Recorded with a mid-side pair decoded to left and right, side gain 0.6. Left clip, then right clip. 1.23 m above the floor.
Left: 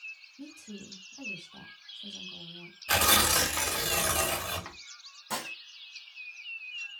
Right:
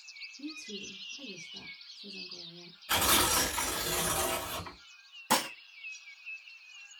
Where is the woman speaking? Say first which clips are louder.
Right 5 dB; 50° left, 1.4 m.